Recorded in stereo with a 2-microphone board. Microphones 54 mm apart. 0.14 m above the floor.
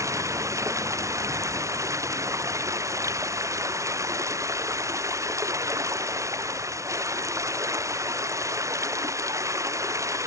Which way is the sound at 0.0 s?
90° right.